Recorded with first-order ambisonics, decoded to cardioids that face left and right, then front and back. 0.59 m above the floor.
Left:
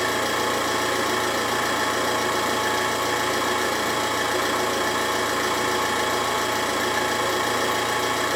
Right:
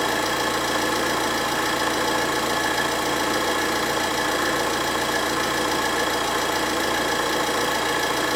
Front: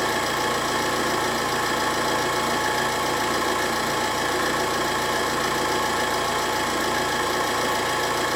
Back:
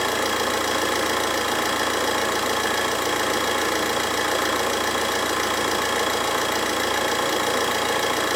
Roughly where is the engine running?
Behind.